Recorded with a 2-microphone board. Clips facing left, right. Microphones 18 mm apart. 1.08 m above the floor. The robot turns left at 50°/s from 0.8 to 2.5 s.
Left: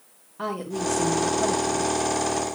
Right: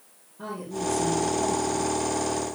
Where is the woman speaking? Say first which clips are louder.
Left 3 dB; 100° left, 2 m; by 1.9 s 45° left, 2 m.